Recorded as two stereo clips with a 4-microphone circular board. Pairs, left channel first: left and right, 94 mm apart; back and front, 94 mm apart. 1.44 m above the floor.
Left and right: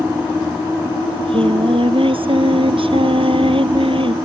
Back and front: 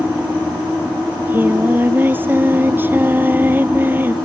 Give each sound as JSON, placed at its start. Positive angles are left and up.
{"t": 1.1, "sound": "singing", "azimuth_deg": -70}